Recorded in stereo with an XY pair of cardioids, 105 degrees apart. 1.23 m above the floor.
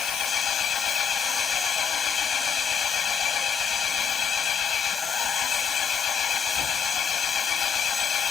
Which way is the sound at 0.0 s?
60° left.